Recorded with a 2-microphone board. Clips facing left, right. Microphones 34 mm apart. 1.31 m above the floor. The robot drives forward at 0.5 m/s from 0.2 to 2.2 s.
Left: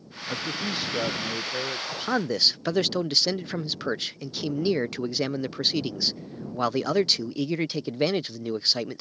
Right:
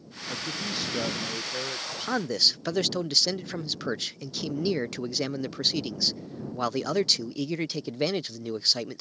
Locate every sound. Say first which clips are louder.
0.3 s a man speaking: left 3 dB; 20° left (ahead or behind); by 1.8 s 10° left (ahead or behind)
1.9 s a man speaking: left 3 dB; 10° left (ahead or behind); by 9.0 s 15° left (ahead or behind)